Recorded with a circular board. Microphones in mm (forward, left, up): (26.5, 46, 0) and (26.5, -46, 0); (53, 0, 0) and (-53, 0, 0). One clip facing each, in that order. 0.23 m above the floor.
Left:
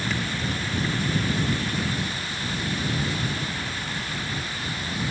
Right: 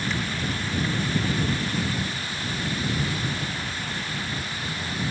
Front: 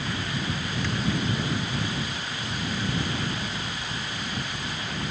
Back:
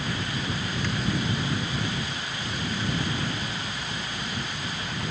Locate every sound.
Only background noise.